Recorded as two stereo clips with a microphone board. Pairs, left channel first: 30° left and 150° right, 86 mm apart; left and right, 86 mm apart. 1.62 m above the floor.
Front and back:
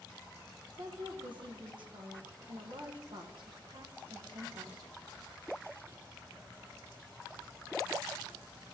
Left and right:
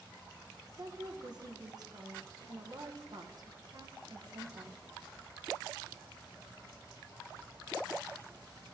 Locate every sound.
0.8 s a woman speaking: 130° right, 1.4 m